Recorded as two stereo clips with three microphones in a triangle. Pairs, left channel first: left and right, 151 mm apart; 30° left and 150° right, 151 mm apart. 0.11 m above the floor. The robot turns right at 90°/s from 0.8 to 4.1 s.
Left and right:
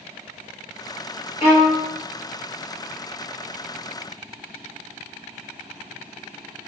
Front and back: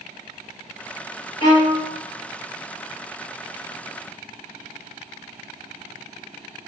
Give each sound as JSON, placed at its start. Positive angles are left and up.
{"t": 1.4, "sound": "a violin", "azimuth_deg": 75, "distance_m": 2.0}